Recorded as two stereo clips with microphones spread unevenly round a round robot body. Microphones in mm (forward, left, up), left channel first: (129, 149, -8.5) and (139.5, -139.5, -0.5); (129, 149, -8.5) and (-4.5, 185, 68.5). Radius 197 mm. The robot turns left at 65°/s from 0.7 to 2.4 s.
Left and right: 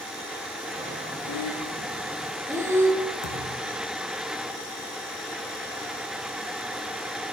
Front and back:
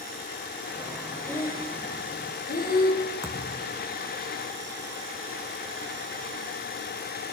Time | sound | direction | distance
1.3 | breathing | 65° left | 5.5 m
3.2 | a thud | 60° left | 7 m